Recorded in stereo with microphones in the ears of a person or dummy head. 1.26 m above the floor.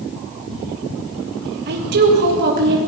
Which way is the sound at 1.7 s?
55° right (ahead or behind).